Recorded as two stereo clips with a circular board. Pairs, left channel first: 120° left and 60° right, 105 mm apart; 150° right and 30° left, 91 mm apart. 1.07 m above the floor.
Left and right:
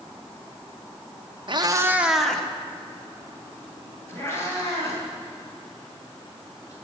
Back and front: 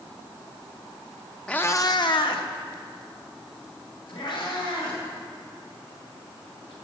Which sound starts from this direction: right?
A cat meowing, at 1.5 s.